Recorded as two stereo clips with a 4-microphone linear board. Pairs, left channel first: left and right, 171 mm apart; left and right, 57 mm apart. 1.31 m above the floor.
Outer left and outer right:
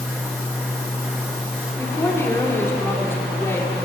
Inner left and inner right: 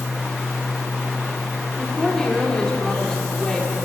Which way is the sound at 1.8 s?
15° left (ahead or behind).